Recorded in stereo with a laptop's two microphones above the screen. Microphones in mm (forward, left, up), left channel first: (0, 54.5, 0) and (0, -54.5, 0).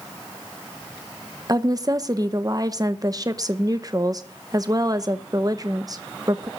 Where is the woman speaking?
35° right (ahead or behind), 0.8 m.